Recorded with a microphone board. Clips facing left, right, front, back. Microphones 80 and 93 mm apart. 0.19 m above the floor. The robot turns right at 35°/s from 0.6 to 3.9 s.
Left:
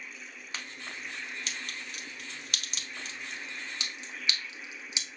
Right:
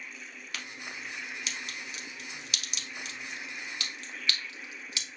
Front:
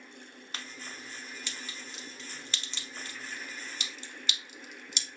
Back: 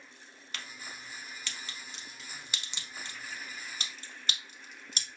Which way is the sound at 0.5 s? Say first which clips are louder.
Even, front 1 dB; 40° left.